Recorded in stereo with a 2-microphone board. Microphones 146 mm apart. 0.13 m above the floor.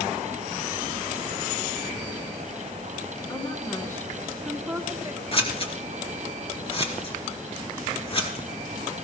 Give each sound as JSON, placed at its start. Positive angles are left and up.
{"t": 3.3, "sound": "a woman speaking", "side_deg": 25, "distance_m": 1.9}
{"t": 5.3, "sound": "scissors", "side_deg": 40, "distance_m": 2.5}